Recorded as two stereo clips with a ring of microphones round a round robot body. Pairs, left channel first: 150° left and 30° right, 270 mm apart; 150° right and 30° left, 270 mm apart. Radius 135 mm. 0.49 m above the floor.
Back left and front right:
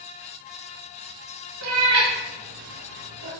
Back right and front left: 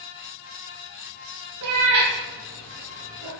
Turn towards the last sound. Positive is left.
turn(degrees=-10)